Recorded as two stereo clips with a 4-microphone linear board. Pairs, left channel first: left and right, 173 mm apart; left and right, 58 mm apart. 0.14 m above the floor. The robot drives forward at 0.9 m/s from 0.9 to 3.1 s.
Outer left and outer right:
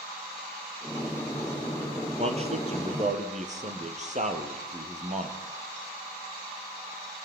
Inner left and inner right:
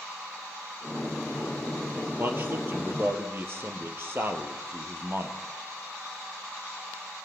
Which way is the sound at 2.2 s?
35° right (ahead or behind).